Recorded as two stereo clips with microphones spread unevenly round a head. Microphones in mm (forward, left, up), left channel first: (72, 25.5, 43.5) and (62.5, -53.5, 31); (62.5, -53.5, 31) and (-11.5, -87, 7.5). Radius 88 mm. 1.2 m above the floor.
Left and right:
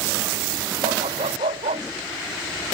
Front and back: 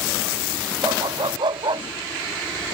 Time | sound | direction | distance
0.8 | a dog barking | 130° right | ?